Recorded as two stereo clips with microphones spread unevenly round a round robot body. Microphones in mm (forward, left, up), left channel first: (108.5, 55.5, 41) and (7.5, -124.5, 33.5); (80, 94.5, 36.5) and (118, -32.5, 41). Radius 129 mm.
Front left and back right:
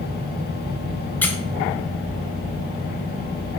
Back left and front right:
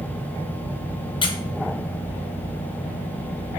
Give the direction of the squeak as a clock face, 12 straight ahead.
7 o'clock.